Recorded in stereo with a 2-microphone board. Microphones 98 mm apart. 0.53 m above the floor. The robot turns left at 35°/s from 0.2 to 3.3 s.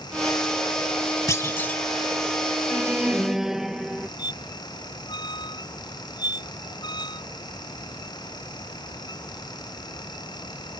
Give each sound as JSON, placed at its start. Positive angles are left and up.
{"t": 1.3, "sound": "a clunk", "side_deg": 30}
{"t": 2.7, "sound": "an alarm", "side_deg": -25}
{"t": 4.2, "sound": "a squeak", "side_deg": 45}